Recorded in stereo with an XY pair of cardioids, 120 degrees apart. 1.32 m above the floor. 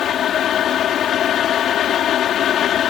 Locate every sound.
0.0 s a fan: 55° left